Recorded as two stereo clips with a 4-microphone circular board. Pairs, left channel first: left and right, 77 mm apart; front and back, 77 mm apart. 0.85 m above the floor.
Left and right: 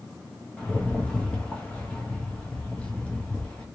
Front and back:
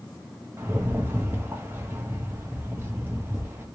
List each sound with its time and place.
0.6 s a rattle: 150° left, 1.1 m